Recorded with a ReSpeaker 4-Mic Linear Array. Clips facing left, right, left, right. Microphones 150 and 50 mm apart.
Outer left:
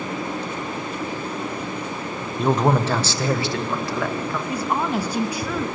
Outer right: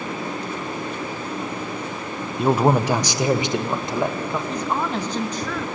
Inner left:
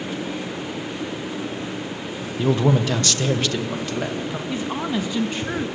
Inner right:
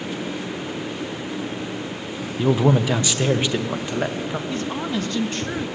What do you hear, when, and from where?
2.4 s a man speaking: 5° right (ahead or behind), 0.8 m; by 4.4 s 25° right (ahead or behind), 2 m
4.5 s a woman speaking: 10° left (ahead or behind), 1.4 m